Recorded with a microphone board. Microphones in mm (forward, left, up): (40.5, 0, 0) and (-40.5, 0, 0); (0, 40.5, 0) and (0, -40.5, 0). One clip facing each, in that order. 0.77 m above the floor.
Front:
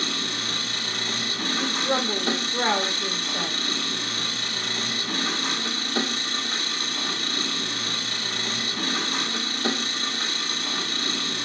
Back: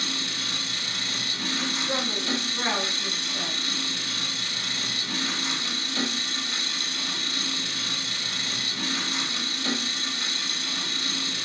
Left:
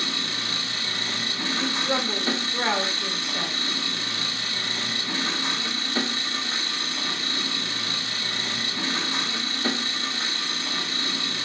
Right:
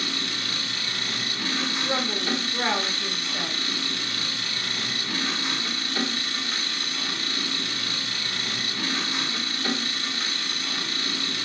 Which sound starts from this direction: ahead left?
An engine running, at 0.0 s.